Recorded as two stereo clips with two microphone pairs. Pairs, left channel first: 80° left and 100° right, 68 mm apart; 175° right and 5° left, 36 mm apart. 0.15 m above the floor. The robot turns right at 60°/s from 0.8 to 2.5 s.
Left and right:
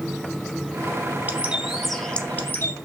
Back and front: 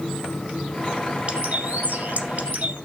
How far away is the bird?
About 1.6 m.